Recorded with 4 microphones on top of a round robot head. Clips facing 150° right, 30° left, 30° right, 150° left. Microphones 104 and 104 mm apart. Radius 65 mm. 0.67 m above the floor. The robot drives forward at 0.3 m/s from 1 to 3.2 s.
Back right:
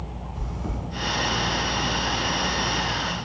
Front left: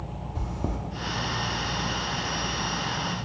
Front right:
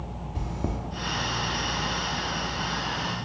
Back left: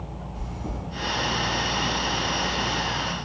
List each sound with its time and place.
0.3 s chewing: 5° right, 0.5 m